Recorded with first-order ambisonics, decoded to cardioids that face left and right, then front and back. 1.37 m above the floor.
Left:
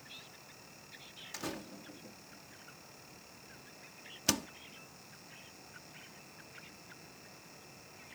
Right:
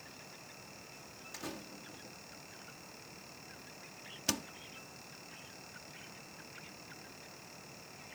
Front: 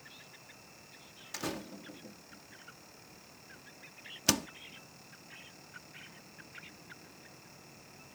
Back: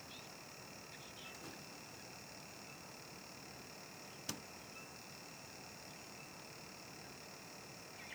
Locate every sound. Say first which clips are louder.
1.3 s a door slam: left 3 dB, front 11 dB; 15° left